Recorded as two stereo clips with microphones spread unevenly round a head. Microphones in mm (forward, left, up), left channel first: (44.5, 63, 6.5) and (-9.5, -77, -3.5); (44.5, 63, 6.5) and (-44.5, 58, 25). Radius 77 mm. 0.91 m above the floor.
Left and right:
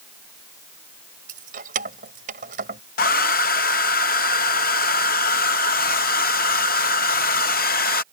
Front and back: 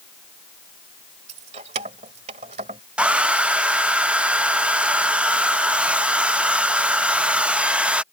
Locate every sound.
1.3 s keys jangling: 155° right
3.0 s a hair dryer: 100° left